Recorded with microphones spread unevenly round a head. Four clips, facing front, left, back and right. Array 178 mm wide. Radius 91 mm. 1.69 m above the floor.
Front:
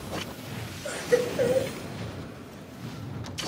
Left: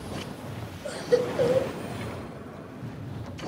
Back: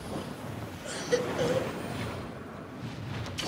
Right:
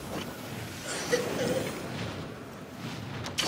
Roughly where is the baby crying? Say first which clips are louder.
Left 6 dB, front 5 dB; ahead left.